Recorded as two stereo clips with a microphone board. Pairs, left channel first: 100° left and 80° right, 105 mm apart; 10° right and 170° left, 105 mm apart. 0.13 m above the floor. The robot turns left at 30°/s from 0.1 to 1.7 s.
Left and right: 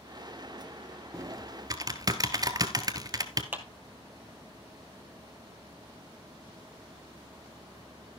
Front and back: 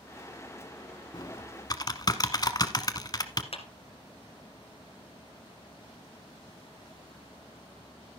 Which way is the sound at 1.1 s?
30° right.